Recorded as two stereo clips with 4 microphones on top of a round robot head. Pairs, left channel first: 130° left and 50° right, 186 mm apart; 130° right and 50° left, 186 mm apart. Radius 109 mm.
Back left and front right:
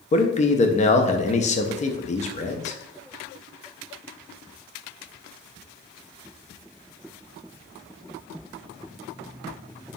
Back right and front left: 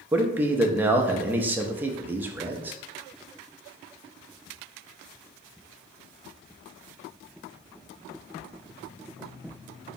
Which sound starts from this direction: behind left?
A man speaking, at 0.1 s.